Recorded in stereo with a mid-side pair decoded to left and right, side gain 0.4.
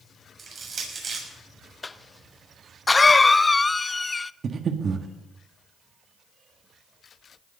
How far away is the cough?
About 0.6 m.